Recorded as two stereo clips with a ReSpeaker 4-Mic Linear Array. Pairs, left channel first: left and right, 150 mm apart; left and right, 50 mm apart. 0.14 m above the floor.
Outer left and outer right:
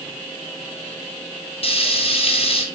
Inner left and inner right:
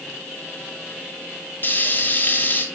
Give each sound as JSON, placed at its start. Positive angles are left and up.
{"t": 1.6, "sound": "frying", "side_deg": 40, "distance_m": 1.4}